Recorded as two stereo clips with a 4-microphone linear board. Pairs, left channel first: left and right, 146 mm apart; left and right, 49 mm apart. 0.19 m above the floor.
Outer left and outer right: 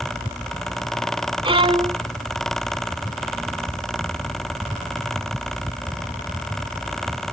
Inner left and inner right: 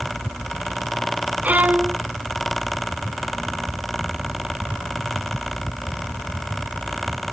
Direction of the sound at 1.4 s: 35° right (ahead or behind).